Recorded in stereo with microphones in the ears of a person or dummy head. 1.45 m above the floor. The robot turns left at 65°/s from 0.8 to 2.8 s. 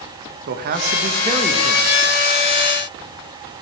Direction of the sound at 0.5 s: 120° right.